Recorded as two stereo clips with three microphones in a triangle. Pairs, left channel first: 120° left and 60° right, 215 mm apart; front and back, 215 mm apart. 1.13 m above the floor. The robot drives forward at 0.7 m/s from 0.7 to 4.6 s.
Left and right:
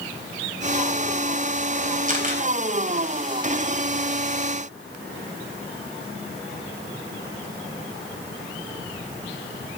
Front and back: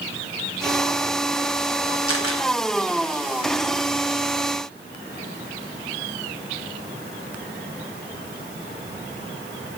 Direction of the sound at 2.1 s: 10° right.